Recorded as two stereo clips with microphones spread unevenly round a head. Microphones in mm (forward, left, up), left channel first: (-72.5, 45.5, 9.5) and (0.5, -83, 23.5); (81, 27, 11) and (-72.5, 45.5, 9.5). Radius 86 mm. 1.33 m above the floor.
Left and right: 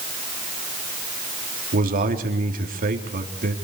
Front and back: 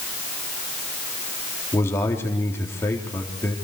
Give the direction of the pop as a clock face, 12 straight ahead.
No pop in this recording.